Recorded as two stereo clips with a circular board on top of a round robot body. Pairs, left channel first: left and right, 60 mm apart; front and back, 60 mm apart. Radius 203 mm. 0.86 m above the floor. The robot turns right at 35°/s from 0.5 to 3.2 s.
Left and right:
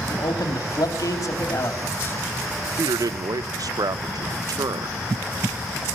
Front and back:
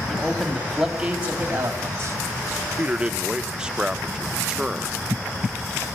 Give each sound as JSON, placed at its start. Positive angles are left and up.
{"t": 0.1, "sound": "a man speaking", "azimuth_deg": 80, "distance_m": 3.0}
{"t": 2.8, "sound": "a man speaking", "azimuth_deg": -120, "distance_m": 0.7}